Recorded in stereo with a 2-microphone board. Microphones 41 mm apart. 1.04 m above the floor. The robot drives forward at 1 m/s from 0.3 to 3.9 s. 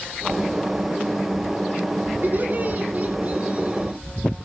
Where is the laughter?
50° right (ahead or behind), 2.5 m; by 4.0 s 30° right (ahead or behind), 4 m.